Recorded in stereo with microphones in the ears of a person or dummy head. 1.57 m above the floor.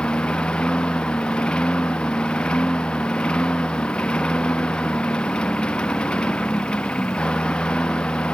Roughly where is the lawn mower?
Centre.